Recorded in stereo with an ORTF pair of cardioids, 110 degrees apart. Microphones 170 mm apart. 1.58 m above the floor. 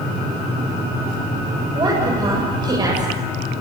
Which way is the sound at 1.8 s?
25° right.